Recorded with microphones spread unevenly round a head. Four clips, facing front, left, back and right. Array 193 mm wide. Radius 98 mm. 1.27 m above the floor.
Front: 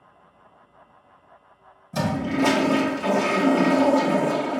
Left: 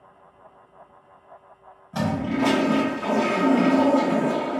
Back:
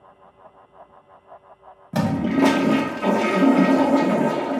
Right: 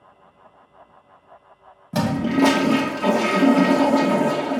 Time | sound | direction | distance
1.9 | a toilet flushing | 130° right | 0.5 m